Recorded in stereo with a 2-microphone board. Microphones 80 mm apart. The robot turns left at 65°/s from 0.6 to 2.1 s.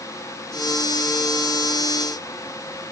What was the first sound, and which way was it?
Only background noise.